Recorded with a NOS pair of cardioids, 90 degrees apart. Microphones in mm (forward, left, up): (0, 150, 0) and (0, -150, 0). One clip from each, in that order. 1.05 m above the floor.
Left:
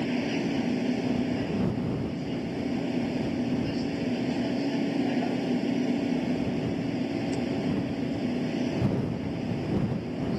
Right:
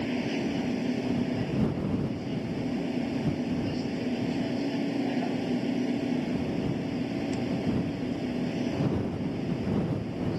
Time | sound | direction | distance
0.0 | a machine running | 15° left | ?